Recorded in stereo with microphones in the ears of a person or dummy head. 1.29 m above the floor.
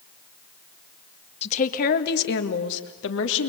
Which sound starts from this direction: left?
A woman speaking, at 1.4 s.